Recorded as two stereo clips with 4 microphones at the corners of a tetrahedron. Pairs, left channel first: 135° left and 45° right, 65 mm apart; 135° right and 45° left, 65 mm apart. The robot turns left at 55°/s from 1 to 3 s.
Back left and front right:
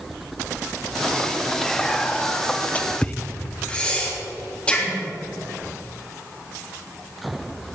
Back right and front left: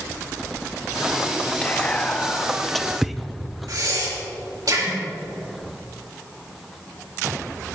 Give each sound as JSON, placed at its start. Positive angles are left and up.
{"t": 1.6, "sound": "whispering", "azimuth_deg": -155, "distance_m": 0.6}
{"t": 3.7, "sound": "breathing", "azimuth_deg": 65, "distance_m": 3.0}